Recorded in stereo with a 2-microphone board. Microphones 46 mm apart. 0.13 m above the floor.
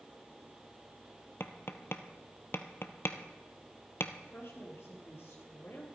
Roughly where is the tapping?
Left.